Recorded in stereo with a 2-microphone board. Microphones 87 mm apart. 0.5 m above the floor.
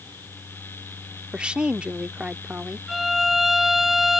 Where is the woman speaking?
15° right (ahead or behind).